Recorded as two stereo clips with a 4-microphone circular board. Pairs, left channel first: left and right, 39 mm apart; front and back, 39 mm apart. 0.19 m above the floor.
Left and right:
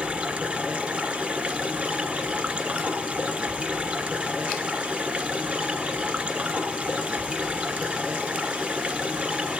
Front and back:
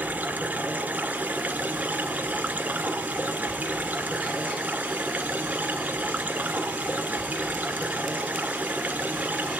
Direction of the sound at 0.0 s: 140° right.